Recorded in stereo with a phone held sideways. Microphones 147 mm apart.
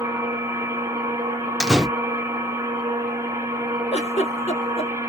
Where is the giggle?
45° left (ahead or behind), 1.2 m.